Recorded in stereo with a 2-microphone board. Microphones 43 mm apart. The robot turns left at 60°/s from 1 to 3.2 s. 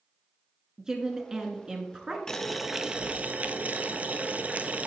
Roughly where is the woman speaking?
Centre.